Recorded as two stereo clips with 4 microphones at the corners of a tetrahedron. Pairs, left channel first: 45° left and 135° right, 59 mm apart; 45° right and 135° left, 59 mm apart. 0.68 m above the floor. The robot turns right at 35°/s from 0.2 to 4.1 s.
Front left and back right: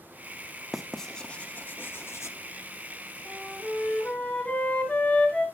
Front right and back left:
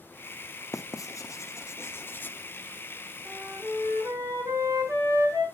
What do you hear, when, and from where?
0.7 s writing: 45° right, 0.7 m; by 2.4 s 10° left, 0.7 m
3.2 s a flute: 90° left, 3.5 m; by 5.5 s 120° left, 3.5 m